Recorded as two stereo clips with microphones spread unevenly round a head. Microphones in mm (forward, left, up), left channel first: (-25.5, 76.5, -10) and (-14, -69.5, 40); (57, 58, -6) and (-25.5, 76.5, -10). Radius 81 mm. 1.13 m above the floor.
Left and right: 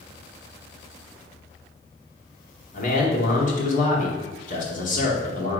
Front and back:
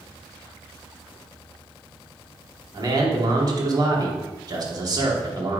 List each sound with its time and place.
2.7 s a man speaking: 125° left, 2.5 m